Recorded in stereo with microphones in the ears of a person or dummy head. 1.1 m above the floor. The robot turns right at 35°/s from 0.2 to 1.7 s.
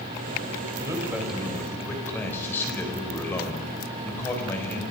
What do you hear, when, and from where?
0.8 s a man speaking: 20° right, 4.5 m; by 4.8 s 10° left, 4.5 m